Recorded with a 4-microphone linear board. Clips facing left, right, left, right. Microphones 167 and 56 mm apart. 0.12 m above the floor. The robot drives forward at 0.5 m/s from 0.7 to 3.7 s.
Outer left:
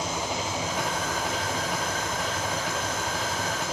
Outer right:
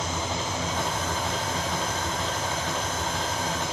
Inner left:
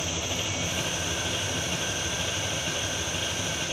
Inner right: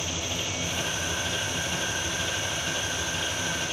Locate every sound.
0.0 s an engine running: 10° left (ahead or behind), 4 m